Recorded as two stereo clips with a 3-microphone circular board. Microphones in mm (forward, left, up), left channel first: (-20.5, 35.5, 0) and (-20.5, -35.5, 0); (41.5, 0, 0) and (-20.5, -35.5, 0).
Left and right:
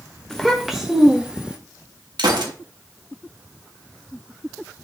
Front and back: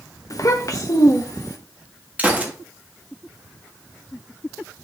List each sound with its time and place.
0.3 s a child speaking: 10° left, 0.5 m; by 1.6 s 15° right, 1.4 m
2.2 s a gunshot: 80° right, 1.5 m